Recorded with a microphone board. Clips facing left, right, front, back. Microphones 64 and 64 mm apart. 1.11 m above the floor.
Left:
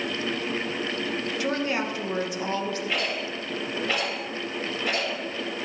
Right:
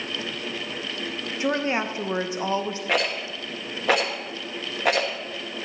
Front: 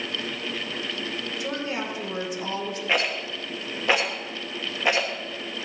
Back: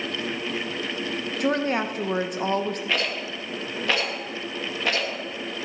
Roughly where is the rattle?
Right.